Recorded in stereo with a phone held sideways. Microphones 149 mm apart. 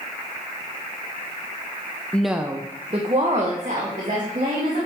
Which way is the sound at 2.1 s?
10° left (ahead or behind).